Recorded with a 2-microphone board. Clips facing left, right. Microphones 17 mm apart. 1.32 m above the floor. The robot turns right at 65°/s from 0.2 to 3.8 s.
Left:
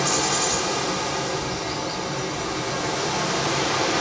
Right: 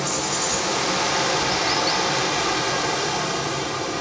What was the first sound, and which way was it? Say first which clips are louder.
Running water: left 2 dB; 170° left.